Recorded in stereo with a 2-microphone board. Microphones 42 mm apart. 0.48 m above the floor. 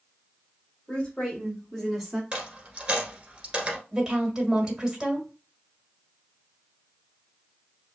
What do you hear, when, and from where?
0.9 s a woman speaking: 20° left (ahead or behind), 2 m; by 2.2 s 5° right (ahead or behind), 1.3 m
2.3 s a dropped coin: 25° right (ahead or behind), 1.4 m
3.9 s a woman speaking: 15° right (ahead or behind), 1.8 m